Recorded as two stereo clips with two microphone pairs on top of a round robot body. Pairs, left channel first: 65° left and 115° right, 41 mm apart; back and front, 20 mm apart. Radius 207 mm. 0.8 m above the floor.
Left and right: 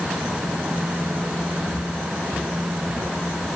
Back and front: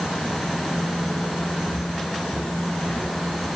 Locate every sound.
1.7 s footsteps: 10° right, 7.5 m; by 3.1 s 15° right, 7 m